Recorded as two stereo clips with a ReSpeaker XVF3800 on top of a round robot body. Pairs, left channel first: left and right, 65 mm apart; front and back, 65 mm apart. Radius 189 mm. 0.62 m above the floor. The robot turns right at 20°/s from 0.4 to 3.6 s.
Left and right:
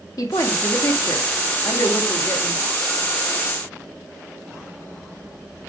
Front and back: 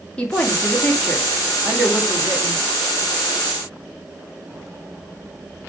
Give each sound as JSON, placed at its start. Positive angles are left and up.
{"t": 0.2, "sound": "a woman speaking", "azimuth_deg": 70, "distance_m": 1.9}